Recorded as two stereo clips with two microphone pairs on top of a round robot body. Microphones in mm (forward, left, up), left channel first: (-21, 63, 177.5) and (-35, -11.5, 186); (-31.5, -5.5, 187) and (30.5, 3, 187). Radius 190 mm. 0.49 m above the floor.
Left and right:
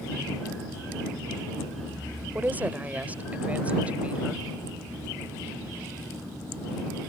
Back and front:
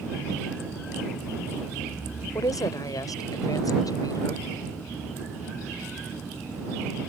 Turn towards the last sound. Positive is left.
turn(degrees=-175)